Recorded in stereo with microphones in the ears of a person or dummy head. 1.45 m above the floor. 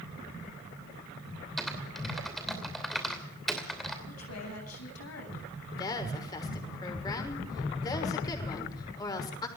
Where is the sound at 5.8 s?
25° left (ahead or behind), 6 m.